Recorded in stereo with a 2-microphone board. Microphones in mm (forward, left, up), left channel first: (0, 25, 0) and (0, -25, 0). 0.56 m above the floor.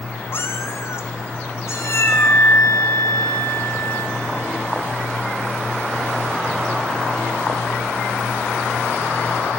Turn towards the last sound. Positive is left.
turn(degrees=35)  # may be behind; listen again after turning